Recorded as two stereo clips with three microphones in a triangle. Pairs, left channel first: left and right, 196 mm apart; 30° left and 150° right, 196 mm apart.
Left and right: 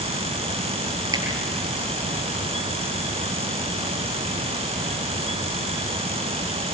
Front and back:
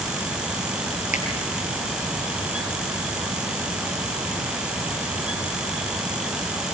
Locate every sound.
1.1 s a finger snap: 20° right, 8 m